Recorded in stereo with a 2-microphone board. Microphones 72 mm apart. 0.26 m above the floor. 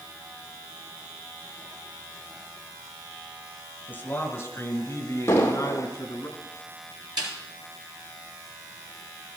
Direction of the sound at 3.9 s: 20° left (ahead or behind).